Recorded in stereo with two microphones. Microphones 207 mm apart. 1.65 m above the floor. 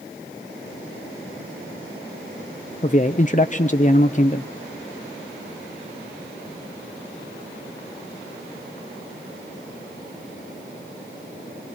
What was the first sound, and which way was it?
A man speaking, 35° left (ahead or behind).